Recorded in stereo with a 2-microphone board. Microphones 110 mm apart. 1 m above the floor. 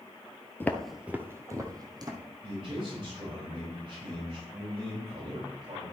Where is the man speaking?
45° right (ahead or behind), 5 m.